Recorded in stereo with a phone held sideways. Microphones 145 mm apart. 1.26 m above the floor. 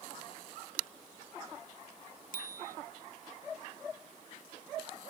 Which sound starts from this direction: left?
A bicycle bell, at 2.3 s.